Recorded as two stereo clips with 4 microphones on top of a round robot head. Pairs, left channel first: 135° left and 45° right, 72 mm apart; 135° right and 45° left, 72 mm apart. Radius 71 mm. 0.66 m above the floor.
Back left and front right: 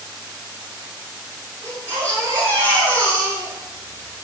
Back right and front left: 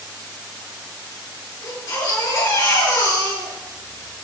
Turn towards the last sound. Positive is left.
turn(degrees=-90)